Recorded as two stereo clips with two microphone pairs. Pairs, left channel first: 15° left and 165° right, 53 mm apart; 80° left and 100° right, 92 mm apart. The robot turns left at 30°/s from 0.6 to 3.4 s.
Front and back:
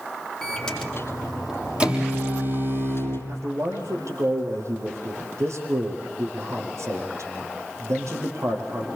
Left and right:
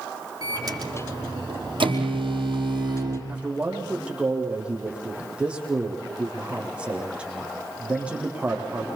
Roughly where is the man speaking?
Behind.